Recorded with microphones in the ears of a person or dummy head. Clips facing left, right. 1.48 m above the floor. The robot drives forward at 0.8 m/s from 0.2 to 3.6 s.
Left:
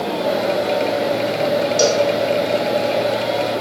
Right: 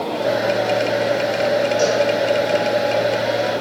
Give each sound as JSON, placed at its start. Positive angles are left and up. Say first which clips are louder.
{"t": 1.8, "sound": "a cowbell", "louder": "left 1 dB", "side_deg": 65, "distance_m": 2.5}